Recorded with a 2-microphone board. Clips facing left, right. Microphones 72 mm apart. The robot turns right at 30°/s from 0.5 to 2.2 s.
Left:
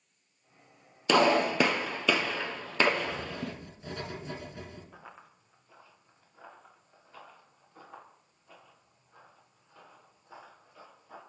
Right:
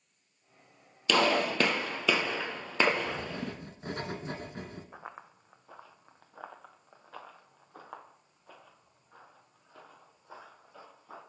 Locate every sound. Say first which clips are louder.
1.1 s a gunshot: left 3 dB; 25° left (ahead or behind), 0.8 m; by 3.5 s 5° right (ahead or behind), 0.8 m
3.1 s writing: even; 45° right (ahead or behind), 0.7 m
4.9 s running footsteps: right 4 dB; 25° right (ahead or behind), 0.6 m; by 11.2 s 75° right (ahead or behind), 4 m